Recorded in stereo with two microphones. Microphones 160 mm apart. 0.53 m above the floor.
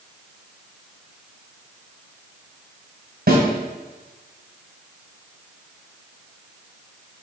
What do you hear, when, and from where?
3.3 s a snare drum: 75° right (ahead or behind), 2.5 m